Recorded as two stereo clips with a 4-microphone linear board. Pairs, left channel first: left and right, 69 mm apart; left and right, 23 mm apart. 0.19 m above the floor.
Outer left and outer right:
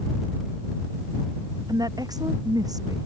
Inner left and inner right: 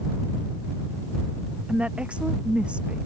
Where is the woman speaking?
70° right (ahead or behind).